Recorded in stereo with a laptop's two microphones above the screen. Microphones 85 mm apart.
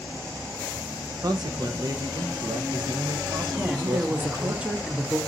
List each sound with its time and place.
1.2 s a man speaking: 50° right (ahead or behind), 0.9 m
3.6 s a woman speaking: 15° right (ahead or behind), 1.2 m